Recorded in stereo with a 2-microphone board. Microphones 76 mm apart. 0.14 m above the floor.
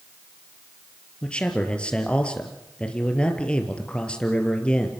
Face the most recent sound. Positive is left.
turn(degrees=15)  # may be behind; listen again after turning